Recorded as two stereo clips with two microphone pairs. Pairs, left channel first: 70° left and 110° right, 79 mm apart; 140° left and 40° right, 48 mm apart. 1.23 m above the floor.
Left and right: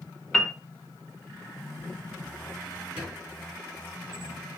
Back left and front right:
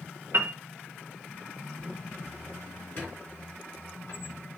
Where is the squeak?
175° right, 3.5 m.